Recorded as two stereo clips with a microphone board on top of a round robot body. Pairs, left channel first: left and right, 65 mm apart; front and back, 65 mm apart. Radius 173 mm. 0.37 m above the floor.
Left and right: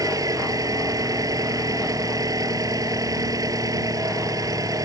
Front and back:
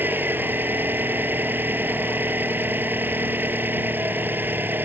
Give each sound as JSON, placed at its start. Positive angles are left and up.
{"t": 0.0, "sound": "an engine running", "azimuth_deg": -120}